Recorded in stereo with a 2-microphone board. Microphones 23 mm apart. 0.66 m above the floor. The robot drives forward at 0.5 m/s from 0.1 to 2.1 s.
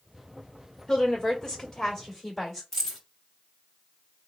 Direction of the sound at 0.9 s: 25° left (ahead or behind).